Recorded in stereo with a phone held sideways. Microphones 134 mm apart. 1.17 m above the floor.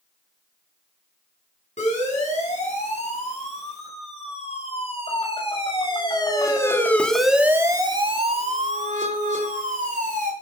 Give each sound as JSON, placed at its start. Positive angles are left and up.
{"t": 1.8, "sound": "a siren", "side_deg": 60, "distance_m": 9.5}